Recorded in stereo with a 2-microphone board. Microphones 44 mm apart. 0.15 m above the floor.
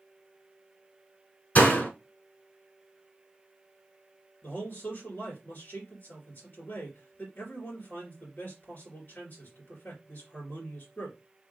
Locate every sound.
1.6 s a door slam: 40° left (ahead or behind), 1.3 m
4.4 s a man speaking: 50° left (ahead or behind), 2.5 m